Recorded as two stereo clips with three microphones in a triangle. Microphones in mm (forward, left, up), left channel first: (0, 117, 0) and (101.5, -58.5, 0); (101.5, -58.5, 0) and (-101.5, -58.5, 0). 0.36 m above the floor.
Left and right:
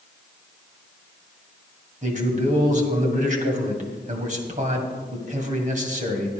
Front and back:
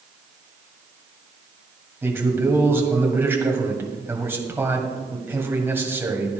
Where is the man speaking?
100° right, 1.9 m.